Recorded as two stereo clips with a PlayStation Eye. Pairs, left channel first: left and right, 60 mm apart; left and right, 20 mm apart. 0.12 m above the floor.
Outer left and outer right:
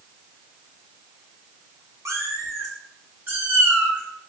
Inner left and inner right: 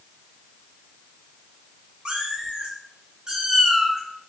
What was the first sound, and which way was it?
A cat meowing, 60° right (ahead or behind).